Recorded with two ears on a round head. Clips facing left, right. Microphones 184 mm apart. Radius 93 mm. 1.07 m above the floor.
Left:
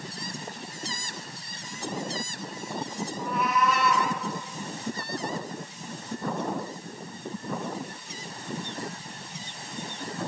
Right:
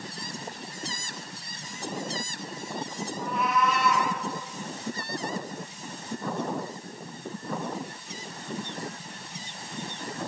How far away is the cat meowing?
About 3 m.